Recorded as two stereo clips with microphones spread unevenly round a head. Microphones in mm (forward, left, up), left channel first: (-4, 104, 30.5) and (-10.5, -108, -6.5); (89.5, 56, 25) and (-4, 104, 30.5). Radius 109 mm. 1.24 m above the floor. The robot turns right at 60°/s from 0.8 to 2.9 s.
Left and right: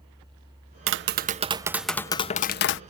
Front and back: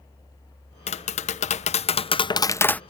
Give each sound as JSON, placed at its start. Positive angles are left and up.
{"t": 0.9, "sound": "tapping", "azimuth_deg": -65}